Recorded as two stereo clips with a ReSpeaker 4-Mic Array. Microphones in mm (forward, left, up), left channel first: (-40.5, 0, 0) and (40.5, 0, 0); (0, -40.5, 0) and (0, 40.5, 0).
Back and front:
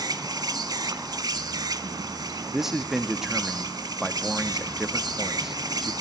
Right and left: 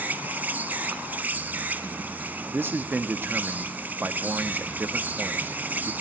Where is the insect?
25° left, 1.0 m.